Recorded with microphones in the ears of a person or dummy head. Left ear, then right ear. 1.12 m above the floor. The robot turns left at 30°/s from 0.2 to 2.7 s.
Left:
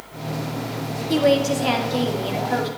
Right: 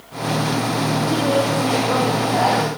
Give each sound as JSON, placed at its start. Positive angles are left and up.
{"t": 1.1, "sound": "a woman speaking", "azimuth_deg": 80, "distance_m": 2.5}